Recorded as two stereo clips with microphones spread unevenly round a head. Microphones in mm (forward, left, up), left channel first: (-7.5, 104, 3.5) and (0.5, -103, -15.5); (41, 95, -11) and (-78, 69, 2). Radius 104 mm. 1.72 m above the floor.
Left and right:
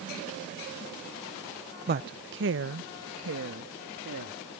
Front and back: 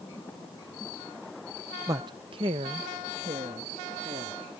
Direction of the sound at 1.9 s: 120° right.